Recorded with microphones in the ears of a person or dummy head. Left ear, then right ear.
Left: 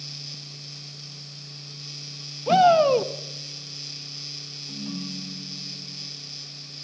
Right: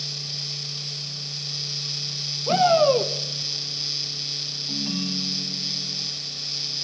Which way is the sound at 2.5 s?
20° left (ahead or behind).